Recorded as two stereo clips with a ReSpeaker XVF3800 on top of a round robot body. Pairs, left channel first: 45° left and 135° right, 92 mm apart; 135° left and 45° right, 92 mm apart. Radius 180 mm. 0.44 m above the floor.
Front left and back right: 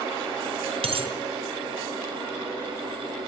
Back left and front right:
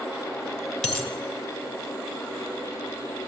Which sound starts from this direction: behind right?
A dropped coin, at 0.8 s.